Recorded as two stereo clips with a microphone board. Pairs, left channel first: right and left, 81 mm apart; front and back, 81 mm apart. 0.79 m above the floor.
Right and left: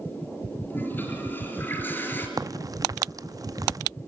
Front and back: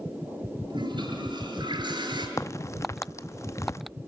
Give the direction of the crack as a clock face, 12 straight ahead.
10 o'clock.